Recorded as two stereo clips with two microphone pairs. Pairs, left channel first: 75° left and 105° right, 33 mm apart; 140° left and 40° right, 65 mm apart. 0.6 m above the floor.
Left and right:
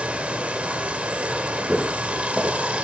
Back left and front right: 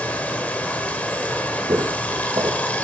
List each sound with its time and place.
0.0 s running water: 155° right, 0.9 m
1.7 s footsteps: 35° right, 1.9 m